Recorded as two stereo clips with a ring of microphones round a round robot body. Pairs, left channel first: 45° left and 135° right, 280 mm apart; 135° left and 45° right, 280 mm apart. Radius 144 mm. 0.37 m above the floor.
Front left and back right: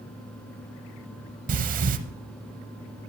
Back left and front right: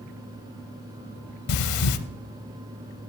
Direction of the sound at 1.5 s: 165° left.